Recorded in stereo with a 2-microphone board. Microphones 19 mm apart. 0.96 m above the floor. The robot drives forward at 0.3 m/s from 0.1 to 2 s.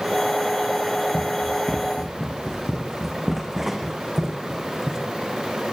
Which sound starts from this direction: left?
Running footsteps, at 1.1 s.